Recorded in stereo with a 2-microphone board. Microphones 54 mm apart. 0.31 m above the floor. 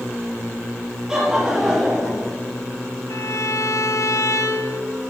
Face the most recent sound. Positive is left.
turn(degrees=70)  # may be behind; listen again after turning